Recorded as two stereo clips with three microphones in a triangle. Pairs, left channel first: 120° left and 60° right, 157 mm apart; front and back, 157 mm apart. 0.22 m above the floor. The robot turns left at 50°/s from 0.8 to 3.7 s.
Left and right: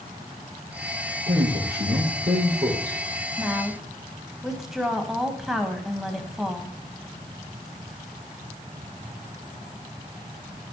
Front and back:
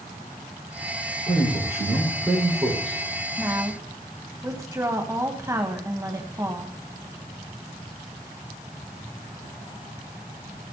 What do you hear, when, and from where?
1.3 s a man speaking: 40° right, 6.5 m; by 3.0 s 125° right, 6.5 m
3.4 s a woman speaking: 125° right, 1.5 m; by 6.8 s 145° right, 1.5 m